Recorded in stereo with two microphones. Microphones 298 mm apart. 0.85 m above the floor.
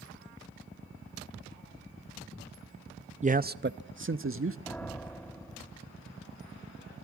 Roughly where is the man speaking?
Right.